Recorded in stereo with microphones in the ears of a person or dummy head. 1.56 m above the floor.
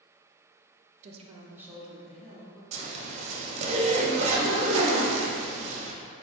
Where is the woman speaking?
45° right (ahead or behind), 0.6 m; by 2.6 s 10° left (ahead or behind), 1.6 m.